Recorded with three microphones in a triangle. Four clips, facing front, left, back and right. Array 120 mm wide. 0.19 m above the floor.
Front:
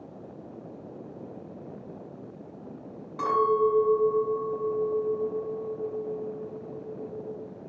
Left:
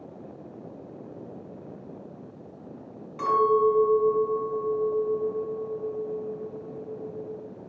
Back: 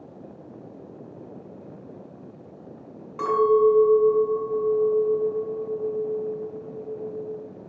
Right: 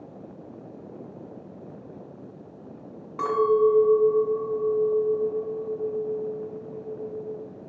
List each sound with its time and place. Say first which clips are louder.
3.2 s a clink: right 1 dB, back 5 dB; 105° right, 1.1 m